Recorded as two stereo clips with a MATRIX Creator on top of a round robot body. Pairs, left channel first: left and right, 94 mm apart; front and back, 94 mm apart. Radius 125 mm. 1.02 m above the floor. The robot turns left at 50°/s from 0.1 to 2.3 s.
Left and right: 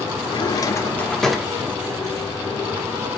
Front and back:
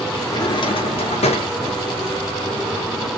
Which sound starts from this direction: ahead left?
A drawer, at 0.2 s.